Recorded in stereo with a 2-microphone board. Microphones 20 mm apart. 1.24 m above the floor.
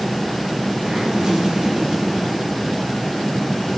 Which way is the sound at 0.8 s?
40° right (ahead or behind).